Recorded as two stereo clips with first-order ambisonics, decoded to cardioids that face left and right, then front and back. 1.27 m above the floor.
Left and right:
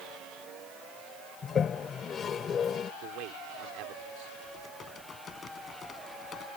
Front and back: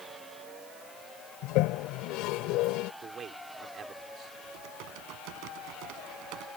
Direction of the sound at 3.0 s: 115° right.